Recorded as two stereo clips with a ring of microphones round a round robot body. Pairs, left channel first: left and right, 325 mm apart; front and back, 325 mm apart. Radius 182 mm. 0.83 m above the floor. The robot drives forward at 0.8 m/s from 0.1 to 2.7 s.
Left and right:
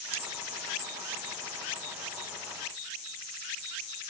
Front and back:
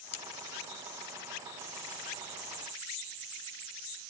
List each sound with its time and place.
0.1 s cutlery clinking: 40° right; by 0.2 s 45° right